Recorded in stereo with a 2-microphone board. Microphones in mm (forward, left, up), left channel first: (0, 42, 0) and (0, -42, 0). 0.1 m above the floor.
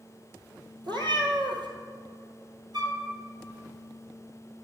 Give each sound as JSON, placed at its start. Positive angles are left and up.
{"t": 0.8, "sound": "a cat meowing", "side_deg": -65, "distance_m": 1.3}
{"t": 2.7, "sound": "a flute", "side_deg": -60, "distance_m": 1.0}